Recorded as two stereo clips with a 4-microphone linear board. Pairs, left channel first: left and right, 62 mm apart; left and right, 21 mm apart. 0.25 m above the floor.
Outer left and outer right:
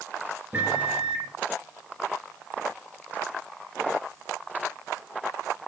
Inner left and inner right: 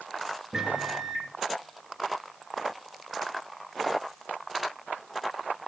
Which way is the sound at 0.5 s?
20° right (ahead or behind).